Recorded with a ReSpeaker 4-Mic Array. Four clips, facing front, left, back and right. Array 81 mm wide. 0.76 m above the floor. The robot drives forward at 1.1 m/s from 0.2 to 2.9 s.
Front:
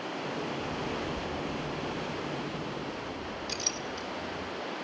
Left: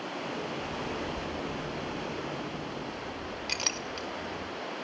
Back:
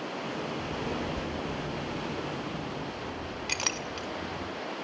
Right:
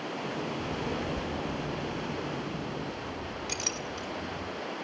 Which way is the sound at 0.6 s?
125° right.